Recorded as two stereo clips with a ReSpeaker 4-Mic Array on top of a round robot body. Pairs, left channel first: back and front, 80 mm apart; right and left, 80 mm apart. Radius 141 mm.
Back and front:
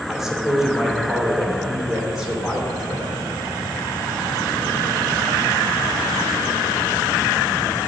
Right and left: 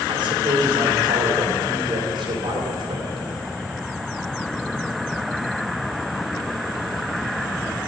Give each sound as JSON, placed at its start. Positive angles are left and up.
{"t": 0.1, "sound": "a man speaking", "azimuth_deg": 80, "distance_m": 2.5}